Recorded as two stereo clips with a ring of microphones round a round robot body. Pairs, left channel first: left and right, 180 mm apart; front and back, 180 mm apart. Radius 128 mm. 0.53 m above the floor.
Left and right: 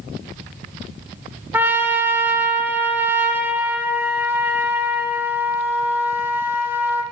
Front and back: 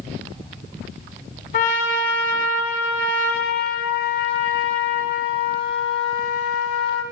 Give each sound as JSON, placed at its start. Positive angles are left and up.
{"t": 1.5, "sound": "a trumpet", "azimuth_deg": -15, "distance_m": 1.3}